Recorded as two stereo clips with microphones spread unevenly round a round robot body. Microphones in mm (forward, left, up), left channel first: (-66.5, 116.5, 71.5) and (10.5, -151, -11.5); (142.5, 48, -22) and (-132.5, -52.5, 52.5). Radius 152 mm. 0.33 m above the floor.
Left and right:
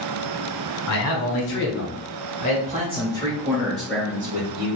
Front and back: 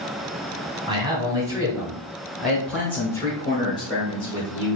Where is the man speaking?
115° left, 1.6 m; by 4.8 s 25° right, 1.8 m.